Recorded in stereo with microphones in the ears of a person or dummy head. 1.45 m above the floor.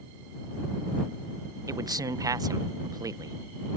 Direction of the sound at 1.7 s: 15° right (ahead or behind).